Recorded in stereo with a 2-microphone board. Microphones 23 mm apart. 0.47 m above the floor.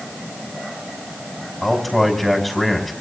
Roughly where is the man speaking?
Centre.